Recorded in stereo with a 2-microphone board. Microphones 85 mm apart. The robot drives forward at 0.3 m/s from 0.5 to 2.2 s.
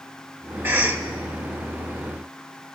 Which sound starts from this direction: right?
A cough, at 0.6 s.